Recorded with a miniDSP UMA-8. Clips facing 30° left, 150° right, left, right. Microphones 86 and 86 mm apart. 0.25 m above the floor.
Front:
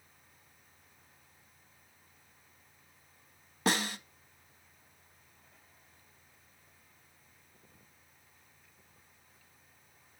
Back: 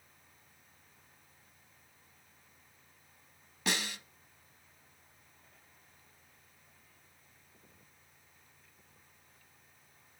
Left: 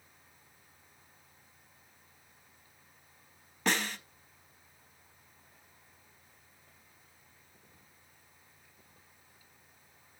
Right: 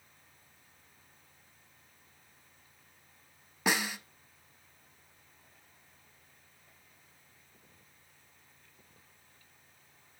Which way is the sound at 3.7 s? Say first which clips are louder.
Front 5 dB, right 1 dB; 10° right.